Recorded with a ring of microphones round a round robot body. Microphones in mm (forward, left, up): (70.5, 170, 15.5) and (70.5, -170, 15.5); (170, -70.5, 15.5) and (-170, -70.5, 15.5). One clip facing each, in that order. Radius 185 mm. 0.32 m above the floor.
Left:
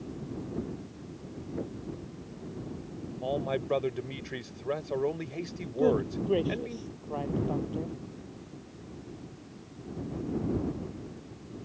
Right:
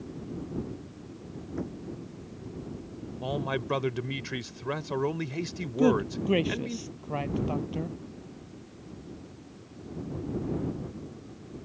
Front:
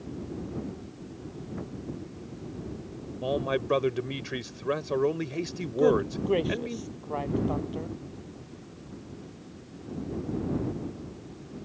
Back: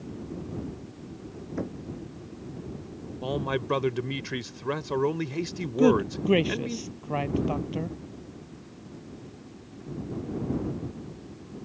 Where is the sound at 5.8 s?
140° right.